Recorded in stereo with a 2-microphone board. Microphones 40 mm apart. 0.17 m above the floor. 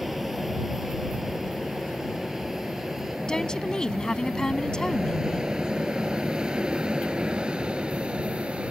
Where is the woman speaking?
20° left (ahead or behind).